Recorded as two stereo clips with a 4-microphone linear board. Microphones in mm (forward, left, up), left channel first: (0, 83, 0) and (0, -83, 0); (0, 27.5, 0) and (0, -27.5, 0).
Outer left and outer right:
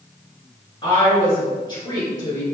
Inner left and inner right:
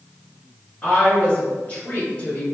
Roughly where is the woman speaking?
Left.